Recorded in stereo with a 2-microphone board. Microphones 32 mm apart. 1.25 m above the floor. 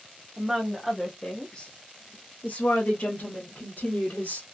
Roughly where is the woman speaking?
Centre.